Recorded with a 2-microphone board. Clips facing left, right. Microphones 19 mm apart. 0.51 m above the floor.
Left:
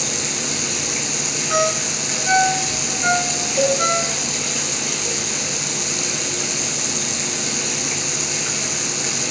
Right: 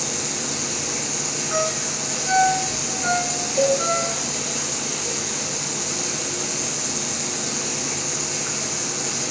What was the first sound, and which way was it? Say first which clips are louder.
Running water: left 3 dB; 40° left (ahead or behind).